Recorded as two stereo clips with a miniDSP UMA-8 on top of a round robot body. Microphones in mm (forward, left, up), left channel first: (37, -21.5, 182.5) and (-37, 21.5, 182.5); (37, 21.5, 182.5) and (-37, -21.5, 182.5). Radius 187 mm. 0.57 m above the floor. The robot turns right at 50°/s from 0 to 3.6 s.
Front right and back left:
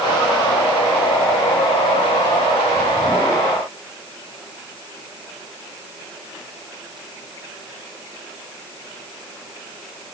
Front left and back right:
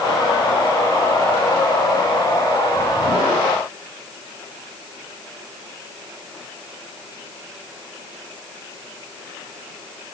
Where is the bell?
I don't hear a bell.